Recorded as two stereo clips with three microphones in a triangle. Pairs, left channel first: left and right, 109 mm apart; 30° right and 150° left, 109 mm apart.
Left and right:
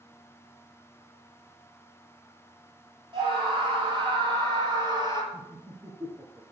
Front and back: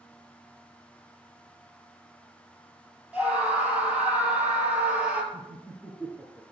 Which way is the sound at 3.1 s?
130° right.